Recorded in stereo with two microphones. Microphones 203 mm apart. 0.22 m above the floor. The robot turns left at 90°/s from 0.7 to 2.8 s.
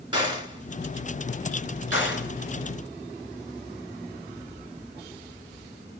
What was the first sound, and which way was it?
A gunshot, 25° right (ahead or behind).